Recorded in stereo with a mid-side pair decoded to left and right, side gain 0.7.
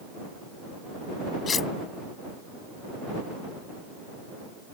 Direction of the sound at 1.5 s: 30° left.